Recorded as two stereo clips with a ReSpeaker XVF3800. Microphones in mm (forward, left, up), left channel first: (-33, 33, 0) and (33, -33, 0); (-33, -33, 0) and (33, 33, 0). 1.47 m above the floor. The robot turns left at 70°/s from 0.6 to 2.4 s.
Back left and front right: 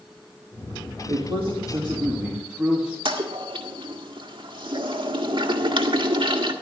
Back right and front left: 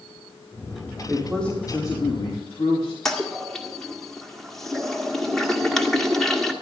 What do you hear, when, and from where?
1.1 s a man speaking: 30° right, 3 m; by 3.0 s 125° right, 3 m
3.0 s a toilet flushing: 50° right, 1.7 m